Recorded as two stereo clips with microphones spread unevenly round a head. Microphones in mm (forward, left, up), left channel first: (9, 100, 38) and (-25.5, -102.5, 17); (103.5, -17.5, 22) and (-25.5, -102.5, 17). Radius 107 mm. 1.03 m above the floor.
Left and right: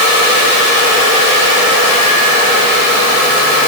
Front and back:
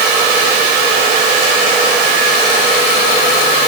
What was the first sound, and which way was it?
Only background noise.